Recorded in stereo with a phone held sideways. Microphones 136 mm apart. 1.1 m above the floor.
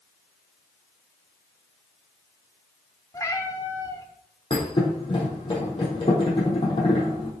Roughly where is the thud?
Left.